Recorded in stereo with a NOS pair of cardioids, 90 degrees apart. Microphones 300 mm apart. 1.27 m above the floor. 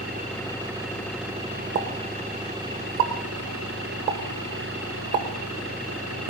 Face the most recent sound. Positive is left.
turn(degrees=-65)